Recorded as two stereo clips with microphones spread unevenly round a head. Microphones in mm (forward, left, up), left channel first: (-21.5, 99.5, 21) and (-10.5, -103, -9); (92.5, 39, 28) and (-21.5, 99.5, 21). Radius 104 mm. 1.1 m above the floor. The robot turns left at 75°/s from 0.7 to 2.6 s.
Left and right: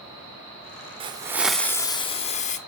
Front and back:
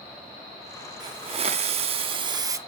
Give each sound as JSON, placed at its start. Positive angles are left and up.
{"t": 1.0, "sound": "a hiss", "azimuth_deg": -150, "distance_m": 0.9}